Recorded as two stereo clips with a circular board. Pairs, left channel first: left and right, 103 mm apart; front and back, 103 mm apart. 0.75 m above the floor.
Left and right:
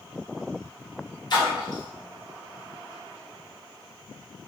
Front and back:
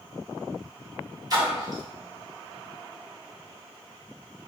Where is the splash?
130° left, 1.0 m.